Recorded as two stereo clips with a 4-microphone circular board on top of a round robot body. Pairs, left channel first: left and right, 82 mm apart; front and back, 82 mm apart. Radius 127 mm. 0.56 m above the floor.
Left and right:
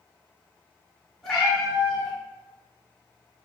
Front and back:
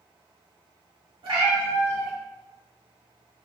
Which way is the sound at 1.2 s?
175° left.